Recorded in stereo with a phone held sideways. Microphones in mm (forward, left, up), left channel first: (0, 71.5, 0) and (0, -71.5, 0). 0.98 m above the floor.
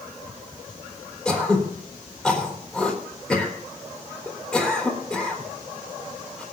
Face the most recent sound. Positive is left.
turn(degrees=5)  # may be behind; listen again after turning